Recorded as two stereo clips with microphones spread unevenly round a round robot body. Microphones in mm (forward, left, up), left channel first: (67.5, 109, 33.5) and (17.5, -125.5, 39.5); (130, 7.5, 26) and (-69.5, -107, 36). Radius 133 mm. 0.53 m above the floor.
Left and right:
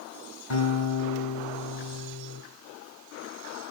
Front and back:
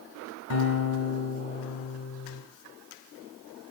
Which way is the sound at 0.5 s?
65° left.